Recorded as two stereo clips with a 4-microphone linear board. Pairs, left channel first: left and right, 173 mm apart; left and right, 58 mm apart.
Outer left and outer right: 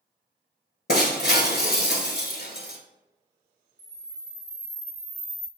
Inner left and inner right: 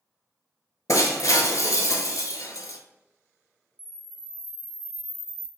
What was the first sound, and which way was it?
Breaking glass, 70° left (ahead or behind).